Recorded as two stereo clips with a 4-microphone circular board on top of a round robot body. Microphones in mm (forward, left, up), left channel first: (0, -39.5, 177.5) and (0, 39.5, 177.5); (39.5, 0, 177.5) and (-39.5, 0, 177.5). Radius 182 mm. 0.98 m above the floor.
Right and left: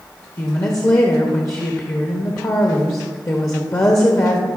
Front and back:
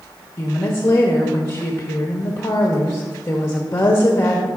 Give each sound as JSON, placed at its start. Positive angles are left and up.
{"t": 0.4, "sound": "a woman speaking", "azimuth_deg": -50, "distance_m": 0.9}